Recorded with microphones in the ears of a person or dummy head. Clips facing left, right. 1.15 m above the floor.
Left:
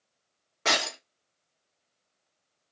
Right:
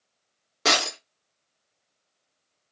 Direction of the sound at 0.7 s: 45° right (ahead or behind).